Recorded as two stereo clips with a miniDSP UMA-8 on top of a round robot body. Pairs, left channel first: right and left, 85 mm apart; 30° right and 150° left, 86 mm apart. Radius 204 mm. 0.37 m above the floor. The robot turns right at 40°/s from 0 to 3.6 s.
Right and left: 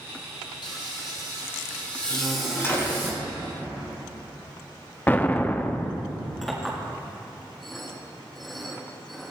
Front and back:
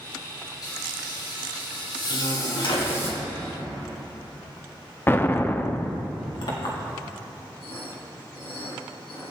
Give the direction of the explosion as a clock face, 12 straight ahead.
2 o'clock.